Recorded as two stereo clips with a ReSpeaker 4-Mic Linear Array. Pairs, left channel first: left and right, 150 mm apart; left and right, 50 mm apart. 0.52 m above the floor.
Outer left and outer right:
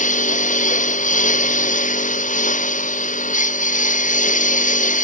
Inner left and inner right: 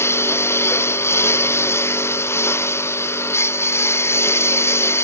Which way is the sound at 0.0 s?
60° left (ahead or behind).